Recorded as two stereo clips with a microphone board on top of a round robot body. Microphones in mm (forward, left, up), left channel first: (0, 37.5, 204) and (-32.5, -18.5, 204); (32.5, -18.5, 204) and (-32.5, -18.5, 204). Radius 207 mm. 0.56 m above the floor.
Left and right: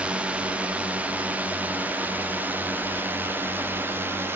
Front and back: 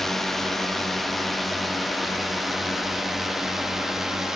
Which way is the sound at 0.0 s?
80° right.